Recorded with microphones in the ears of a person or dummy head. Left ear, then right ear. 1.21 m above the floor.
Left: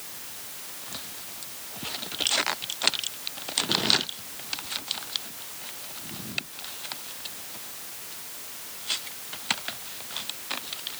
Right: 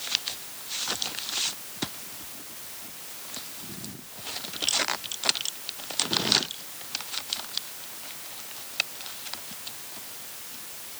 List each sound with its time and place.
Only background noise.